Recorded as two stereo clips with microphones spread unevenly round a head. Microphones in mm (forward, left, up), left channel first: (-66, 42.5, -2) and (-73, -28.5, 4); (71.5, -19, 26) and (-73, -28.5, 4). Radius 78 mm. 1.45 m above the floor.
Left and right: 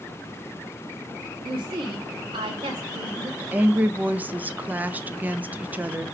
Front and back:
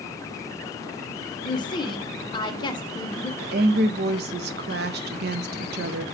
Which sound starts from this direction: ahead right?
A woman speaking, at 1.4 s.